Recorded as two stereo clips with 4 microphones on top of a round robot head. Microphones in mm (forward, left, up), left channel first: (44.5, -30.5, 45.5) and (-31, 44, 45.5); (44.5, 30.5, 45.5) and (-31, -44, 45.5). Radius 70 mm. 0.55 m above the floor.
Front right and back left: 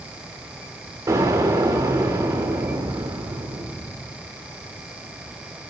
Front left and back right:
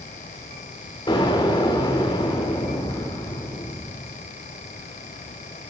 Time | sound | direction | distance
1.1 | an explosion | 85° left | 2 m